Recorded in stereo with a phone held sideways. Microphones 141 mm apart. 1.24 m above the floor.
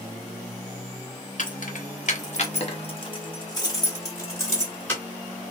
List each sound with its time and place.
1.4 s keys jangling: 65° left (ahead or behind), 1.0 m; by 5.0 s 15° left (ahead or behind), 2 m